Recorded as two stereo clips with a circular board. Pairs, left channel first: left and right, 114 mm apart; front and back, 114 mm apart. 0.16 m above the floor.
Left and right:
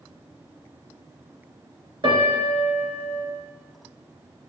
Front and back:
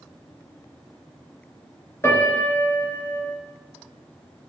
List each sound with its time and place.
2.0 s a piano: 60° right, 3 m